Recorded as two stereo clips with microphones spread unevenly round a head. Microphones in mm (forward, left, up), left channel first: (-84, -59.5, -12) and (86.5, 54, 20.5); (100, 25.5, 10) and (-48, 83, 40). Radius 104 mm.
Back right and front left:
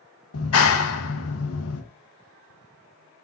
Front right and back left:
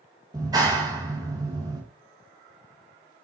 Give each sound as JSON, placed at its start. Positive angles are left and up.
{"t": 0.3, "sound": "a clap", "azimuth_deg": -130, "distance_m": 1.6}